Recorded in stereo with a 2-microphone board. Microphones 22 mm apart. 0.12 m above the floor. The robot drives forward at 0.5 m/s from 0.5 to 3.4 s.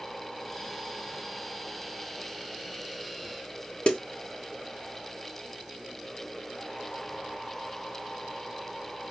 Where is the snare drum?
50° left (ahead or behind), 0.9 m.